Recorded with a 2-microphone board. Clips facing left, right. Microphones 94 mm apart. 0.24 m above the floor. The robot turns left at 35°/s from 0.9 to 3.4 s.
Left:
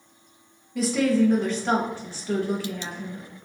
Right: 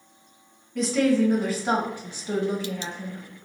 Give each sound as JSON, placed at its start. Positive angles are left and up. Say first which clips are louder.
{"t": 0.8, "sound": "a woman speaking", "louder": "even", "side_deg": 5, "distance_m": 1.0}